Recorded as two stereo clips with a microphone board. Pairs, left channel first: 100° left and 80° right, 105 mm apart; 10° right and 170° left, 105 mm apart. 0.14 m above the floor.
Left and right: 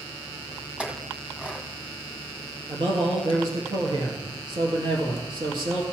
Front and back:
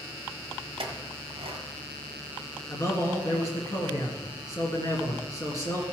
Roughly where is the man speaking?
Ahead right.